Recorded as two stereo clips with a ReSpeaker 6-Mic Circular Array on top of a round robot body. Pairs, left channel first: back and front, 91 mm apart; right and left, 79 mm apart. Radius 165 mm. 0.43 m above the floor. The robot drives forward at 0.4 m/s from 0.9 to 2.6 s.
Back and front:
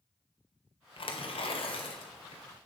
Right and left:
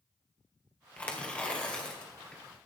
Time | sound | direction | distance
1.0 | tearing paper | 165° right | 1.9 m